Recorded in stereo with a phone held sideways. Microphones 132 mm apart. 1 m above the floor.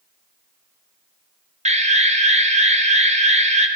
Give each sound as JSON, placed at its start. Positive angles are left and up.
{"t": 1.6, "sound": "an alarm", "side_deg": -60, "distance_m": 0.8}